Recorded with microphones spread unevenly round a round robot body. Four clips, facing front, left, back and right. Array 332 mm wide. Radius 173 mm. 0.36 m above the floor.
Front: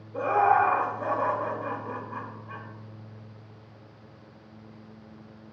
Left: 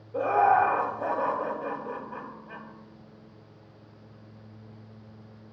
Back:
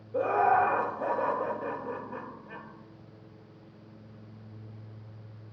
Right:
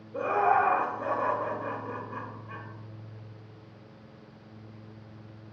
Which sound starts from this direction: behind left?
Laughter, at 0.1 s.